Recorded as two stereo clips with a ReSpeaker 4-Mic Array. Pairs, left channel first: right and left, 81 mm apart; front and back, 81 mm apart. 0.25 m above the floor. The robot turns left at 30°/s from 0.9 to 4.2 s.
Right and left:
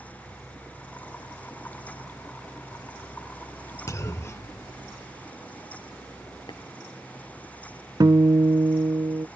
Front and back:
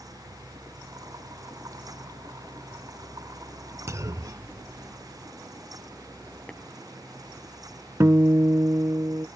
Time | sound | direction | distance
3.9 | a clunk | 135° right | ?
6.5 | tapping | 80° right | ?
8.0 | a guitar | 125° left | ?